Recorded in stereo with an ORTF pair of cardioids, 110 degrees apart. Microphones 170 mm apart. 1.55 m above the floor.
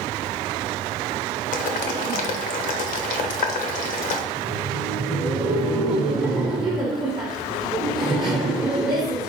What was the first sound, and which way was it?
Boiling, 55° left.